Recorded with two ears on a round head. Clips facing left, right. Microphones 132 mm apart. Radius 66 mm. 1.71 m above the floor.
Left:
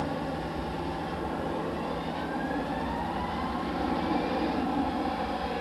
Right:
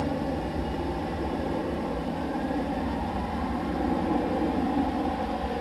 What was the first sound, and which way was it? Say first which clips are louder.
An aircraft: right 3 dB; 20° right (ahead or behind).